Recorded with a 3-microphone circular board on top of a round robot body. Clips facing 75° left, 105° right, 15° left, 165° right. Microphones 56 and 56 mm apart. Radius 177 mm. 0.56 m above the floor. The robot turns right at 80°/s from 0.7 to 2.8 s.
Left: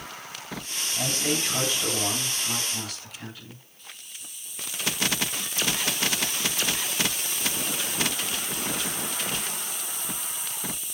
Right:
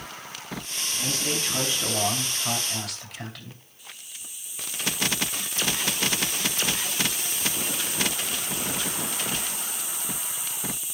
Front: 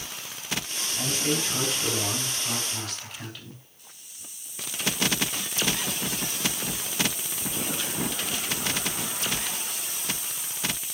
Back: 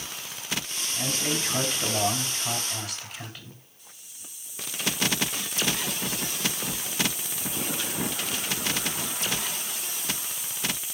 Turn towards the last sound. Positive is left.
turn(degrees=-20)